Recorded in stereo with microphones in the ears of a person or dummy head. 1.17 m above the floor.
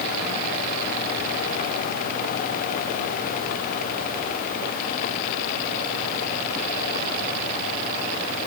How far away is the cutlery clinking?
I don't hear cutlery clinking.